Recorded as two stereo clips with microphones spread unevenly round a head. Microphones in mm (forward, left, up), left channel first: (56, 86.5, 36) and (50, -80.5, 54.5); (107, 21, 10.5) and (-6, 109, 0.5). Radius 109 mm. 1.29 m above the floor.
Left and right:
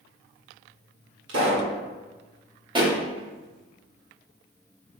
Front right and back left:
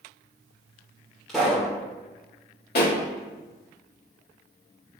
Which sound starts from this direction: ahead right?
A pop, at 2.8 s.